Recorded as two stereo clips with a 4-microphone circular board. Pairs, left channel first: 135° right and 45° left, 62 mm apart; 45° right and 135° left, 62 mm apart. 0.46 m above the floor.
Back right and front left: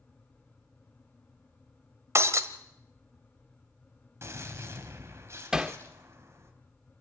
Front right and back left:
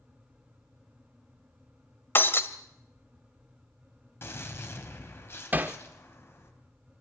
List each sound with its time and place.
2.1 s breaking glass: 5° left, 1.4 m
4.2 s a gunshot: straight ahead, 3.5 m
5.5 s hammering: 115° left, 1.0 m